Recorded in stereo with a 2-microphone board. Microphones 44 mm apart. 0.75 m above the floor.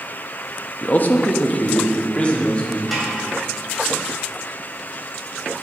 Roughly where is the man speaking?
Left.